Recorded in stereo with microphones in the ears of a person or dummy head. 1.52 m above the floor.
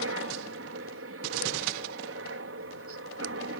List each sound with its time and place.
0.0 s a helicopter: 60° right (ahead or behind)